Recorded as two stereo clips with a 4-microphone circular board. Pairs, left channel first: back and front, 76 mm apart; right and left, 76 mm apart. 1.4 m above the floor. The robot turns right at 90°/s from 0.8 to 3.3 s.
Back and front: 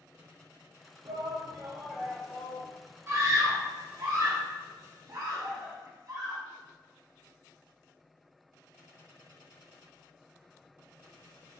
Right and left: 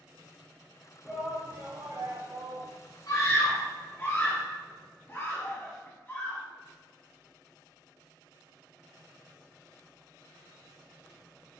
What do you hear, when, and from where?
1.1 s a shout: 10° right, 0.5 m; by 2.7 s 140° left, 0.5 m
3.1 s a scream: 55° right, 0.5 m; by 6.4 s 30° right, 0.5 m